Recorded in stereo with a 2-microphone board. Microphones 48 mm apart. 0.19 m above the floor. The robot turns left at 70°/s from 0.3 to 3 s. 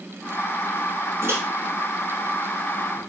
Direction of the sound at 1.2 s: 55° right (ahead or behind).